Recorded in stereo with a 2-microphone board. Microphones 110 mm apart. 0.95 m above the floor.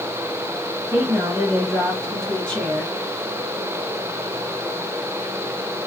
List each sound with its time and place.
0.9 s a woman speaking: 20° right (ahead or behind), 1.4 m; by 3.0 s 25° left (ahead or behind), 1.7 m